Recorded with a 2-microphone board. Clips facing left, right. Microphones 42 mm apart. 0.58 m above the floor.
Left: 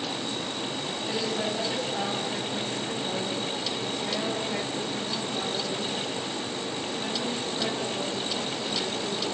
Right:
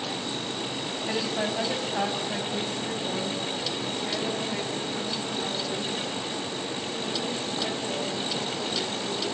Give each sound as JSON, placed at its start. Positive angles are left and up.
{"t": 1.1, "sound": "a woman speaking", "side_deg": -30, "distance_m": 4.5}